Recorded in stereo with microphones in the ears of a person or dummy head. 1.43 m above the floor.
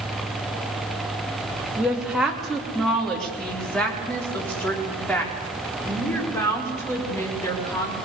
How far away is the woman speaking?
About 2.5 m.